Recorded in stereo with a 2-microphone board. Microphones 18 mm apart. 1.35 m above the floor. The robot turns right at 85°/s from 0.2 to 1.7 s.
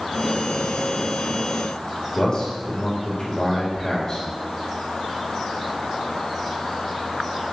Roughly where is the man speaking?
Left.